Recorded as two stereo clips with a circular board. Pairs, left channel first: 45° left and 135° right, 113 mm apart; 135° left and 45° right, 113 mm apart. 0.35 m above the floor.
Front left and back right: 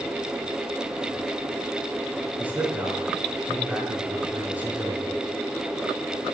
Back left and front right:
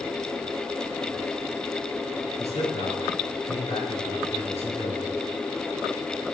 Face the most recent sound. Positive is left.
turn(degrees=150)